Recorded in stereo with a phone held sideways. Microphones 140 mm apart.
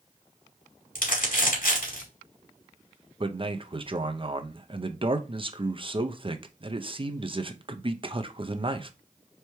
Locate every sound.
0.9 s crumpling: 80° left, 2.5 m
3.2 s a man speaking: 40° right (ahead or behind), 0.6 m